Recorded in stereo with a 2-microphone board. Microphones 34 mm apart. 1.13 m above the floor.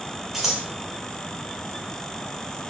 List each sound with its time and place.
0.3 s scissors: 5° right (ahead or behind), 1.9 m